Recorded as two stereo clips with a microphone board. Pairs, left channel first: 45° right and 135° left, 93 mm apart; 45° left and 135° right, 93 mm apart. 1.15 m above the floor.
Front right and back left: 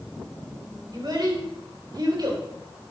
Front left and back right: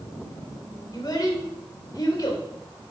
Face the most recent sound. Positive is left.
turn(degrees=90)